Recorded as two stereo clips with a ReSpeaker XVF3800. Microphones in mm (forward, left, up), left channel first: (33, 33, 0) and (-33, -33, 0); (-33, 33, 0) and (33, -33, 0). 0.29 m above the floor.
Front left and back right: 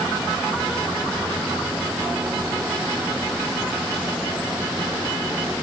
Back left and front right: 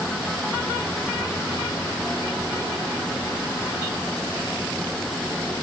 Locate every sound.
Only background noise.